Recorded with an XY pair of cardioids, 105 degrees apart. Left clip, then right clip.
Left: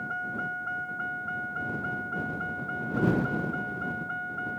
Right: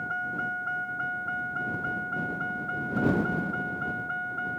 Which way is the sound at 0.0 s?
15° right.